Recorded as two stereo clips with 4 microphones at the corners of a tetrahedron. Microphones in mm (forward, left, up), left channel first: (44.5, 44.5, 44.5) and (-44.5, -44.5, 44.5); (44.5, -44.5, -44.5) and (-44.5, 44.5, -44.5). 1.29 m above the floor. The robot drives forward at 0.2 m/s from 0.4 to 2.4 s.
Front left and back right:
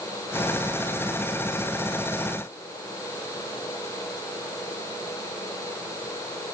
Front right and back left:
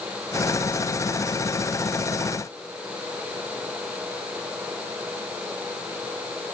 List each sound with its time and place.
Only background noise.